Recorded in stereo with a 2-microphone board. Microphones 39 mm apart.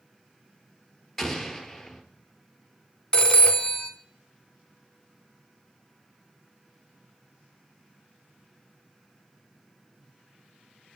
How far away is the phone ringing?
About 0.6 m.